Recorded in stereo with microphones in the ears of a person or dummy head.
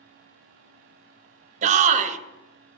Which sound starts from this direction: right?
A shout, at 1.6 s.